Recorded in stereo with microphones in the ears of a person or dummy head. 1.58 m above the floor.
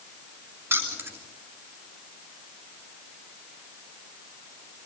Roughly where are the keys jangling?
Centre.